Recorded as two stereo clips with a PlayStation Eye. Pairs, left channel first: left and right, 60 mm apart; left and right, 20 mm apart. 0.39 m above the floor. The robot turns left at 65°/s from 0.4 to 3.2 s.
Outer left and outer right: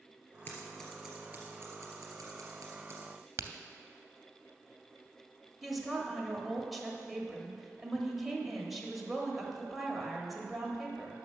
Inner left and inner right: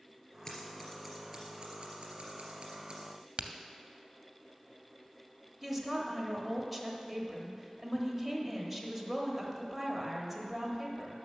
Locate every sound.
0.5 s scissors: 30° left (ahead or behind), 3 m; by 3.1 s 35° right (ahead or behind), 3 m
3.4 s a crack: 50° right (ahead or behind), 0.6 m
5.6 s a woman speaking: centre (ahead or behind), 1.4 m